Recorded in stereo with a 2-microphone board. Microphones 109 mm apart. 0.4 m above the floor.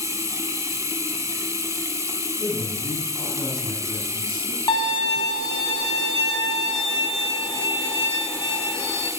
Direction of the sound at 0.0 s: 30° right (ahead or behind).